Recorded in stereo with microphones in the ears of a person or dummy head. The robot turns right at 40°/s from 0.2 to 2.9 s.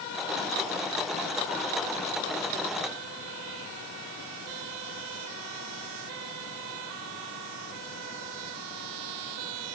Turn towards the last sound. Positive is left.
No sound to turn to.